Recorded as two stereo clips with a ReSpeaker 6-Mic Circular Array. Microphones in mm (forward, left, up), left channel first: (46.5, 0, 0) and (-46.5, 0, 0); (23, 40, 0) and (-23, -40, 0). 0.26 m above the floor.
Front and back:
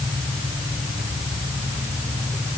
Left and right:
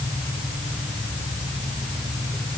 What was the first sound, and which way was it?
Only background noise.